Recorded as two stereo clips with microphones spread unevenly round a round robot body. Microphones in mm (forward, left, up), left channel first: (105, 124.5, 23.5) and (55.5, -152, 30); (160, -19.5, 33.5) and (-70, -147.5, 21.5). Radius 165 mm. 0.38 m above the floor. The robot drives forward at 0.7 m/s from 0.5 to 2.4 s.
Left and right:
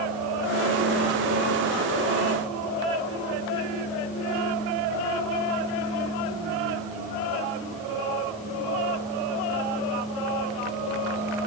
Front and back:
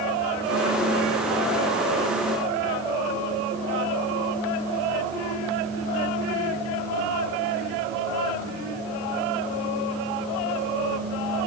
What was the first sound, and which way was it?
Only background noise.